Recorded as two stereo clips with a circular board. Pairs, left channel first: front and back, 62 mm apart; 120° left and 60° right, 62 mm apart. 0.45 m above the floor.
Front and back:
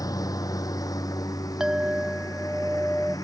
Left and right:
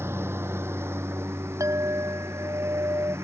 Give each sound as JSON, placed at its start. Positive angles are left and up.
{"t": 0.0, "sound": "a lawn mower", "azimuth_deg": -10}
{"t": 1.6, "sound": "a clink", "azimuth_deg": -100}